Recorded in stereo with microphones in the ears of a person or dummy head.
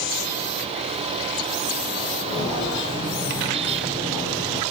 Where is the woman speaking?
No woman speaking in this recording.